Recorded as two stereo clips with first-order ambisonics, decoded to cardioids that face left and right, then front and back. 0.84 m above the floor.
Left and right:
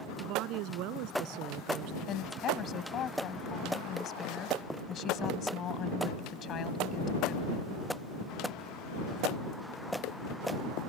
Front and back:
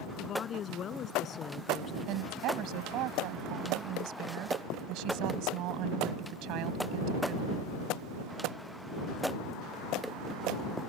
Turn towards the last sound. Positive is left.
turn(degrees=145)